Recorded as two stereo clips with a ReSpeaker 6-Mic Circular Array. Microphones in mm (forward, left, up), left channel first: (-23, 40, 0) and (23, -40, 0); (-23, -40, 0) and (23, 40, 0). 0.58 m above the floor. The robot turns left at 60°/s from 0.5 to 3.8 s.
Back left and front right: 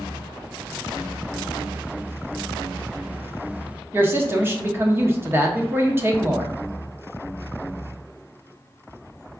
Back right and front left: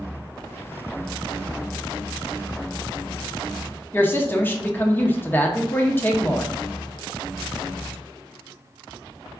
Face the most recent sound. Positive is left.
turn(degrees=-85)